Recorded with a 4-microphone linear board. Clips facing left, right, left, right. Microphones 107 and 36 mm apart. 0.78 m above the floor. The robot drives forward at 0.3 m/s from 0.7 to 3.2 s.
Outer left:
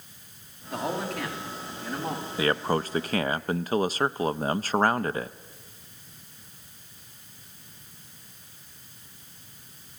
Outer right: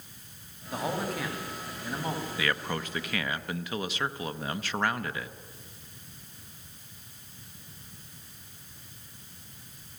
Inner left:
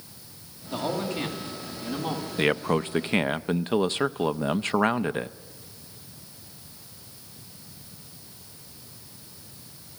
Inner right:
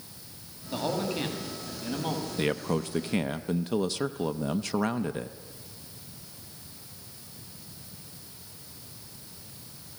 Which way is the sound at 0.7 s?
Centre (ahead or behind).